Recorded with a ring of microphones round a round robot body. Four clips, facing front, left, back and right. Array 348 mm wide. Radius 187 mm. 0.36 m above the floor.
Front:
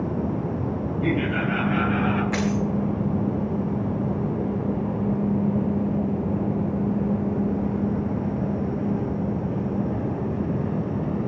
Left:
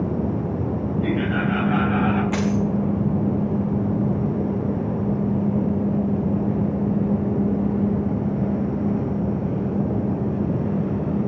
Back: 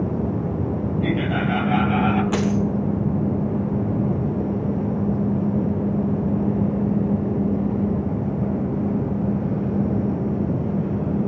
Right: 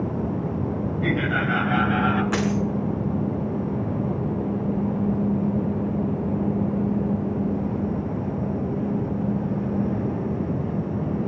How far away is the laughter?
About 3 m.